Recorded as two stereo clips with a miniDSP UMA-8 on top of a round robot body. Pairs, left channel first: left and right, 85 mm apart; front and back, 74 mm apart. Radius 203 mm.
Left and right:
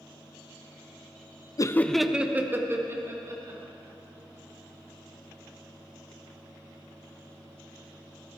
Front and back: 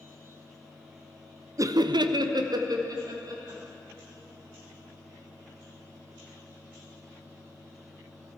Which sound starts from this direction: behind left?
Laughter, at 1.6 s.